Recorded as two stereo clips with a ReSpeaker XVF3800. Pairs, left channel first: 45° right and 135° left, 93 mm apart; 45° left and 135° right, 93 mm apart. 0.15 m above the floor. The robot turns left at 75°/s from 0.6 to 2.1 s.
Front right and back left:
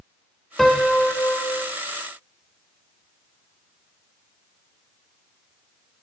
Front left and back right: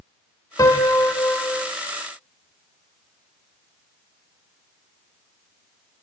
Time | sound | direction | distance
0.6 | a piano | 45° left | 0.5 m